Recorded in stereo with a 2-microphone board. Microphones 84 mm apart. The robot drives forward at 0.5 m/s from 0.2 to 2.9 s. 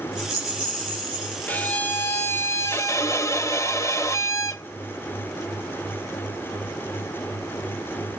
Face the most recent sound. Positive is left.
turn(degrees=35)  # may be behind; listen again after turning